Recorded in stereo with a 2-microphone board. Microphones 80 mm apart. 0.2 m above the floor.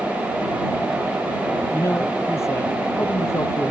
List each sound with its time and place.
1.7 s a man speaking: 30° left (ahead or behind)